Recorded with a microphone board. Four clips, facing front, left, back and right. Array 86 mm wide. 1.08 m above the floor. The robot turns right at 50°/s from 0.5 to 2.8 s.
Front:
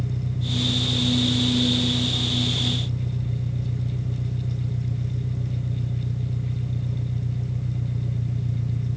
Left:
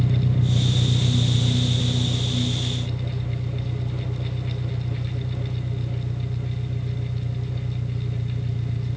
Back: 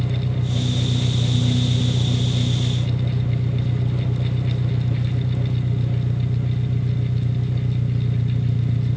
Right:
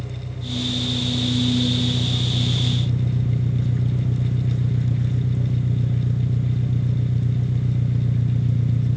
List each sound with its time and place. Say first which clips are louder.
0.0 s an engine running: left 10 dB, back 4 dB; 115° left; by 9.0 s 130° right